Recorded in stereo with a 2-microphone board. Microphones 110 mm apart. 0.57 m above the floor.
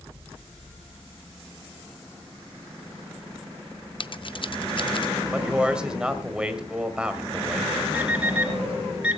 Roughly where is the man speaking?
Centre.